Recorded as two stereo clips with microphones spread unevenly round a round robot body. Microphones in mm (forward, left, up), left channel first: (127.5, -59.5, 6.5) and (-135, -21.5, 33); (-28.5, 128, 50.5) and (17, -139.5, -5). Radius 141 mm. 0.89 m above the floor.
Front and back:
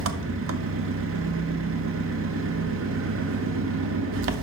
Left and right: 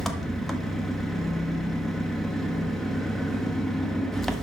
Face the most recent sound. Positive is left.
turn(degrees=-160)